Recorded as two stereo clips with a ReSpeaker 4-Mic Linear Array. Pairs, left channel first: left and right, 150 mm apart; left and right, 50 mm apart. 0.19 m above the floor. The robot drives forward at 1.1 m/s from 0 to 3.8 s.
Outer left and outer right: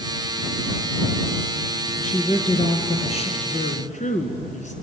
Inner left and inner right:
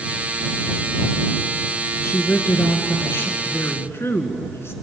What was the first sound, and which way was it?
A woman speaking, 55° left (ahead or behind).